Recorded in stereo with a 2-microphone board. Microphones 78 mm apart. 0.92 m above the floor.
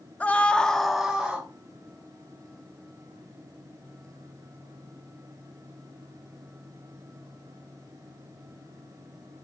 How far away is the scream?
About 0.8 m.